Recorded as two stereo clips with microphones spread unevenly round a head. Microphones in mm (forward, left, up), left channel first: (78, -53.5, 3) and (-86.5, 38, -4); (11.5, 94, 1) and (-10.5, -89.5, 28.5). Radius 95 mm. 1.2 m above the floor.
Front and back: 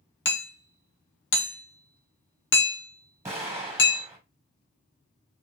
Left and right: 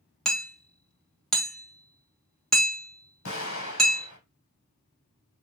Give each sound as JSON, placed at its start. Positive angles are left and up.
{"t": 0.2, "sound": "hammering", "azimuth_deg": 0, "distance_m": 1.0}
{"t": 3.2, "sound": "an explosion", "azimuth_deg": 75, "distance_m": 1.8}